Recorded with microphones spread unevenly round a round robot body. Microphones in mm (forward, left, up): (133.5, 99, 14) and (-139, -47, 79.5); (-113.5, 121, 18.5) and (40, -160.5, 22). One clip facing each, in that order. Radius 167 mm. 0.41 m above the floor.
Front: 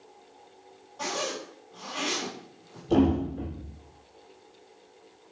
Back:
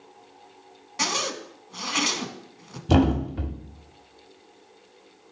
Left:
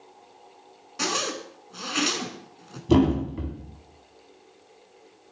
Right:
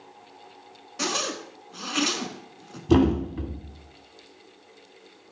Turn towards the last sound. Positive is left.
turn(degrees=-145)